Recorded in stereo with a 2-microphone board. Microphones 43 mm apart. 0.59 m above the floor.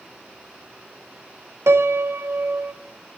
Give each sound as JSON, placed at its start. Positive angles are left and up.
{"t": 1.7, "sound": "a piano", "side_deg": -85, "distance_m": 0.5}